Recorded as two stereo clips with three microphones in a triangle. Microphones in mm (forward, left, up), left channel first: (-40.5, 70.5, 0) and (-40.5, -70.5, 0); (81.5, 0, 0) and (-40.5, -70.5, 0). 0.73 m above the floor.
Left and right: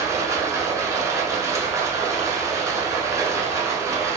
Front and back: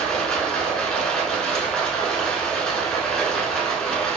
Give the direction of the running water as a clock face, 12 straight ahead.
2 o'clock.